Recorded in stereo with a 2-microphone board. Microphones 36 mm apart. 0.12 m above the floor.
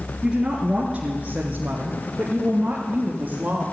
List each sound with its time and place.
0.2 s a woman speaking: 20° right (ahead or behind), 2.0 m; by 3.6 s 40° right (ahead or behind), 3 m